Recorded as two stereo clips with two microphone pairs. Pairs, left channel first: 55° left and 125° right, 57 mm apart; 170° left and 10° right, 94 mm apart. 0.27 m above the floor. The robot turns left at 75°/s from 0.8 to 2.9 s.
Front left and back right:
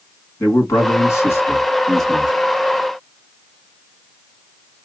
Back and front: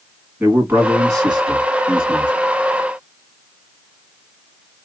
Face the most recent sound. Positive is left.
turn(degrees=-95)